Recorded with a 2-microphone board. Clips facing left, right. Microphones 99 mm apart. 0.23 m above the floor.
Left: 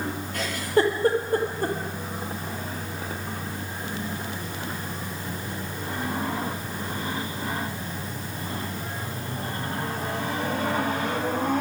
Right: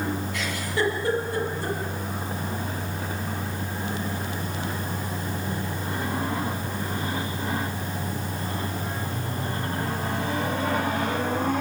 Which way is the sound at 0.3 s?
45° left (ahead or behind).